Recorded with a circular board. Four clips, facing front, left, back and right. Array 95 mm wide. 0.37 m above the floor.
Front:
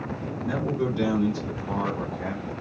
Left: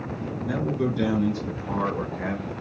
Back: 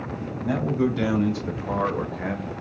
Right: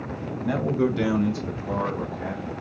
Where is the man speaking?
125° right, 2.5 m; by 2.5 s 130° left, 1.5 m.